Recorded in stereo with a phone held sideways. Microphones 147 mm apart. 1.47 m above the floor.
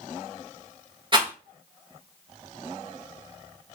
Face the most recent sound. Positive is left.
turn(degrees=-35)  # may be behind; listen again after turning